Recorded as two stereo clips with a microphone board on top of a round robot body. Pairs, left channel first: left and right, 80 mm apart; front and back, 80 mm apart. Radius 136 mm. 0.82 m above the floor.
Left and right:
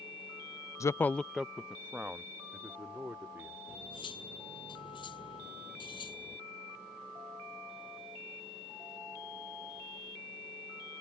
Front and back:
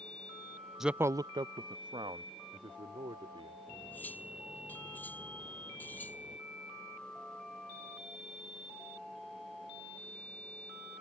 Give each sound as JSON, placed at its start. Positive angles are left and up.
{"t": 0.8, "sound": "a man speaking", "azimuth_deg": 95}
{"t": 3.7, "sound": "cutlery clinking", "azimuth_deg": 70}